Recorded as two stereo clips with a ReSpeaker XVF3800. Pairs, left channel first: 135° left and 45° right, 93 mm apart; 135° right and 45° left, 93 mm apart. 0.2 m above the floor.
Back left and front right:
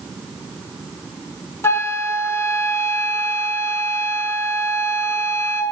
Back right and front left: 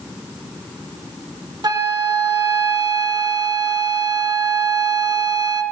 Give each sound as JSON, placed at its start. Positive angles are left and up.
{"t": 1.6, "sound": "a flute", "azimuth_deg": 80, "distance_m": 0.5}